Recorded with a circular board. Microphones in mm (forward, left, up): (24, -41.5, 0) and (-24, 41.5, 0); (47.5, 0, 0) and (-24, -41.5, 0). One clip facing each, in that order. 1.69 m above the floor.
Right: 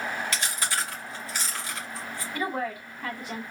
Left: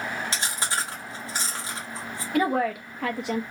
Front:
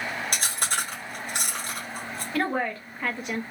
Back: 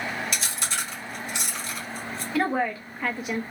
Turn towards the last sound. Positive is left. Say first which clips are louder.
# left 8 dB, back 2 dB
turn(degrees=125)